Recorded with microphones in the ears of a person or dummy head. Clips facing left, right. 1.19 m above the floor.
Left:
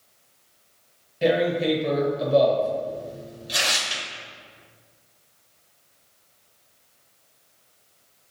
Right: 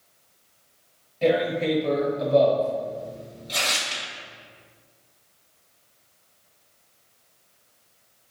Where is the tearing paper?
10° left (ahead or behind), 0.7 m.